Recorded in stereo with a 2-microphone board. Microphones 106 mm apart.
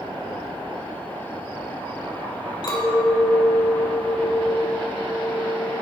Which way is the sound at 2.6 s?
45° left (ahead or behind).